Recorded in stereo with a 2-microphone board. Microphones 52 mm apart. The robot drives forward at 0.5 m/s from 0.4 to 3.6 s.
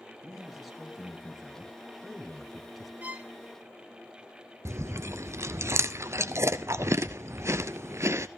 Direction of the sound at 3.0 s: 30° right (ahead or behind).